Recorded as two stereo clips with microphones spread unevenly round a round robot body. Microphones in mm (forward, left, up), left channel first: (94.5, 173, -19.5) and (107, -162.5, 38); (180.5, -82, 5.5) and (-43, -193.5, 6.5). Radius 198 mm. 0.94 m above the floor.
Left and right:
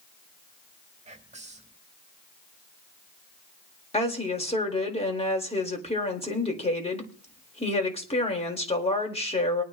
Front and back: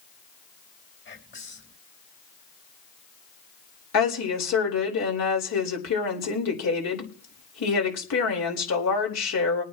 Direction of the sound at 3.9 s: 20° left.